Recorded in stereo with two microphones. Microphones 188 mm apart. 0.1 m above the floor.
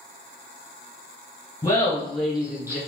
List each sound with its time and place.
1.6 s laughter: 20° left (ahead or behind), 1.4 m; by 2.8 s 15° right (ahead or behind), 1.5 m